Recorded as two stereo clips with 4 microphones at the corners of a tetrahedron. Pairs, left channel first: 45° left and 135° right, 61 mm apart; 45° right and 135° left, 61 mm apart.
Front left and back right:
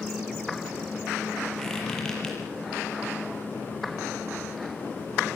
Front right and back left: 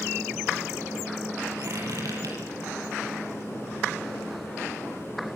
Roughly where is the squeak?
Behind left.